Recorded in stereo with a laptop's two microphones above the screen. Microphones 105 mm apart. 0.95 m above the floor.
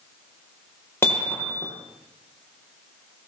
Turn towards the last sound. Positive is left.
turn(degrees=25)  # may be behind; listen again after turning